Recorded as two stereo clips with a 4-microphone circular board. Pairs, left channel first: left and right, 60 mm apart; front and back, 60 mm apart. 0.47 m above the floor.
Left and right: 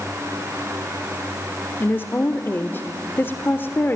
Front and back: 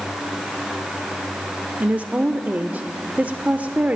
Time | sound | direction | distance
1.8 | a woman speaking | 125° left | 1.1 m